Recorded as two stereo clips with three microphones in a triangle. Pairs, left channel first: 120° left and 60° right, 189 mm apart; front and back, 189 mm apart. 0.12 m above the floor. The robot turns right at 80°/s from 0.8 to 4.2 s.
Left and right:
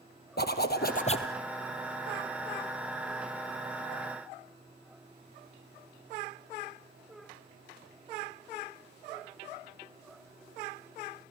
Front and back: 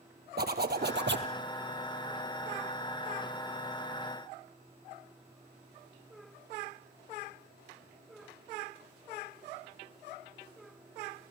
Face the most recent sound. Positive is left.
turn(degrees=60)